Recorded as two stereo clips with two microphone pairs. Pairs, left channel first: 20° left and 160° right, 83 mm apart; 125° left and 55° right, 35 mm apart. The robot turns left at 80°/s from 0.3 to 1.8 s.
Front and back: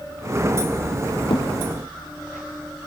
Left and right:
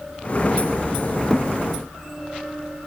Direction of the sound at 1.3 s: 35° left.